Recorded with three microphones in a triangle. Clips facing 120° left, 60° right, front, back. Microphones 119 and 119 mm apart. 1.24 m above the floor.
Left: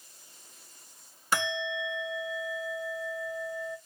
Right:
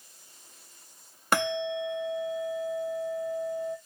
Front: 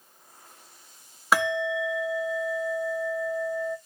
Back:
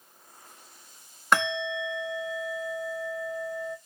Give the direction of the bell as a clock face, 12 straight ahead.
3 o'clock.